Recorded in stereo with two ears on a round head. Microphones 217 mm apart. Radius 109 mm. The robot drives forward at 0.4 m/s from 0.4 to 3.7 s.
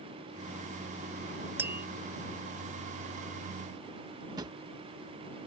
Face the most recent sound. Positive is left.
turn(degrees=-20)  # may be behind; listen again after turning